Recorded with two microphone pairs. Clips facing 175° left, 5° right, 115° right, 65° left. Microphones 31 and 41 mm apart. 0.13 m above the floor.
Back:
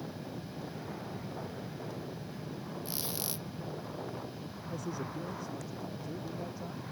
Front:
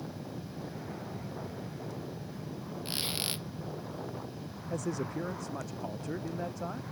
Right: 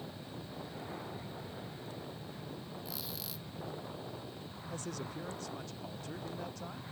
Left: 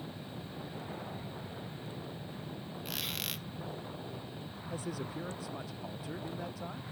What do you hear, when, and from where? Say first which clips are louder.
2.9 s a squeak: front 7 dB, left 6 dB; 35° left
4.7 s a man speaking: front 5 dB, left 3 dB; 20° right